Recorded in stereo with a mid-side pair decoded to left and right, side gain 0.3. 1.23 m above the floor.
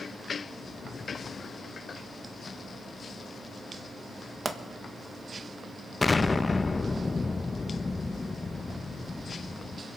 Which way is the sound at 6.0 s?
35° left.